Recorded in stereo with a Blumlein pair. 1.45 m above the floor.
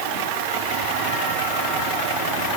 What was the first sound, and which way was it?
Only background noise.